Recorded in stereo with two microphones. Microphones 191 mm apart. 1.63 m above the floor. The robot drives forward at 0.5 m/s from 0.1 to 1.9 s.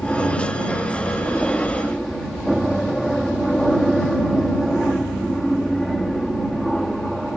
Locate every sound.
0.0 s an aircraft: centre (ahead or behind)